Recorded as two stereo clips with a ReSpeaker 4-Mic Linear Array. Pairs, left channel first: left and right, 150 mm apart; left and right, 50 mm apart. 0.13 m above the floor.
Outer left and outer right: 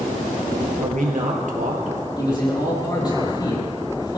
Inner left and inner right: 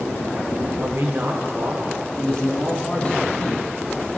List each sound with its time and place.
0.8 s a man speaking: 60° right (ahead or behind), 2.5 m
2.2 s a man speaking: 30° left (ahead or behind), 4 m